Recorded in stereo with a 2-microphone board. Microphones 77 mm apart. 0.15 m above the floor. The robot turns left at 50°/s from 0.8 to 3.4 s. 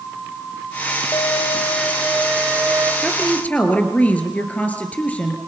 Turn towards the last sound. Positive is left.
turn(degrees=20)  # may be behind; listen again after turning